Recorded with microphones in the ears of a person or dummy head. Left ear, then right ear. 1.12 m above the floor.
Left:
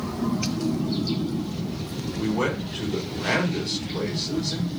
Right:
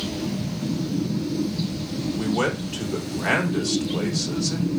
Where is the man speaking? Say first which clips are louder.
Right 1 dB; 70° right (ahead or behind), 3 m.